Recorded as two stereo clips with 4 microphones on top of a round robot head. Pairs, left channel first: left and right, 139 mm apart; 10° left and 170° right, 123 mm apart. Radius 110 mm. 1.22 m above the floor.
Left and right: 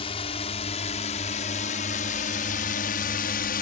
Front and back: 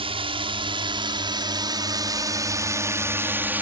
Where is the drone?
145° left; by 3.6 s 115° left.